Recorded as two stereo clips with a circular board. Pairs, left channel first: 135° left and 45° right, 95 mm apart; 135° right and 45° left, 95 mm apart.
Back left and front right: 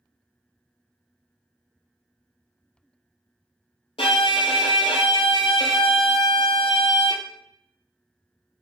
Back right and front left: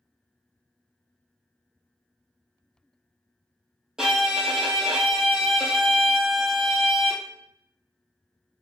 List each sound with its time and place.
4.0 s a violin: 130° left, 0.5 m